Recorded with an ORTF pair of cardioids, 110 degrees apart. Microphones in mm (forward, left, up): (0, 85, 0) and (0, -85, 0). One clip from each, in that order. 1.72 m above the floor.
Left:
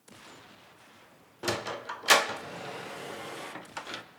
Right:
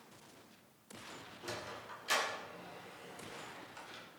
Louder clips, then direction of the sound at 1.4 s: Left 13 dB; 70° left.